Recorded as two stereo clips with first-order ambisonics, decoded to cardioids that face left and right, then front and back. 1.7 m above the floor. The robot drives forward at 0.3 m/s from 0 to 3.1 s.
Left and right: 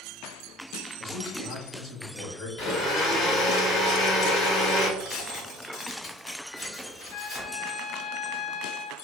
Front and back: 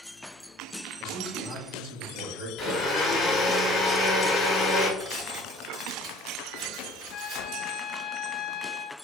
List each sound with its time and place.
1.0 s a man speaking: 130° left, 0.9 m; by 2.5 s 150° left, 1.3 m
2.6 s a blender: 75° left, 1.1 m; by 4.9 s 85° left, 1.1 m
5.0 s tearing paper: 140° left, 1.9 m
7.1 s a trumpet: 70° left, 0.9 m